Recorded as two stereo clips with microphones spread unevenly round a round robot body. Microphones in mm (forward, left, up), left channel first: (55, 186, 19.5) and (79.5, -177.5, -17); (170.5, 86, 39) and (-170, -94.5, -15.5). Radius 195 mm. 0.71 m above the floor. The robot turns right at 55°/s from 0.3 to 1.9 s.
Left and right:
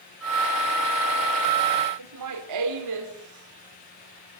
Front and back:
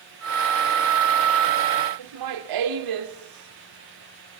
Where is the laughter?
125° right, 2 m.